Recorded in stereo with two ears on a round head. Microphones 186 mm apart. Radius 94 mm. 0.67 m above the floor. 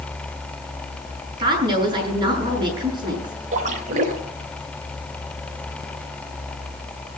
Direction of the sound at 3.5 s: 40° right (ahead or behind).